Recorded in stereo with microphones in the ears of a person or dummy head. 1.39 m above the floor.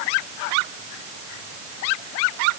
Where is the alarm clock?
I don't hear an alarm clock.